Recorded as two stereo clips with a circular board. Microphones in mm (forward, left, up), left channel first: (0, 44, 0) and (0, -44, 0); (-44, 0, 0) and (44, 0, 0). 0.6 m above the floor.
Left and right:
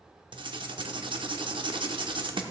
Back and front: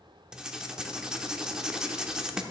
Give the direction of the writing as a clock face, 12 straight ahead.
3 o'clock.